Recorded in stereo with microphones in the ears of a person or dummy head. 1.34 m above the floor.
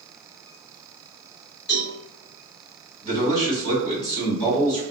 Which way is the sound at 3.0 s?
30° left (ahead or behind).